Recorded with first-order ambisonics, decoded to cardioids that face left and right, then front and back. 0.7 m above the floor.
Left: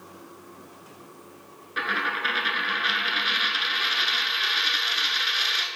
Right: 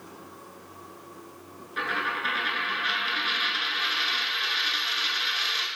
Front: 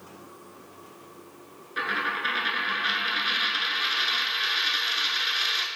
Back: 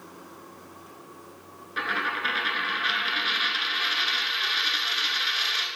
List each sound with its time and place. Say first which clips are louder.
1.8 s a dropped coin: left 2 dB, even; 100° left, 0.6 m